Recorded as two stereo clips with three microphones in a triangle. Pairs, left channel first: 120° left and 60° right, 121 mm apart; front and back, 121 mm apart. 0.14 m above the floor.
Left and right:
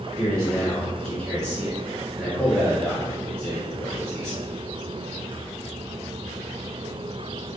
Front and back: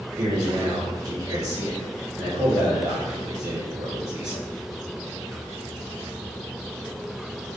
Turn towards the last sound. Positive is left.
turn(degrees=-155)